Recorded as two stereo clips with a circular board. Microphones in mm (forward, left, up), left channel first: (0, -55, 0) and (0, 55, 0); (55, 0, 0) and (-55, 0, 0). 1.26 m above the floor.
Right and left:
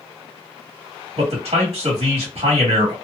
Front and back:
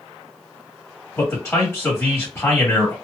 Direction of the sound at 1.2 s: 65° left.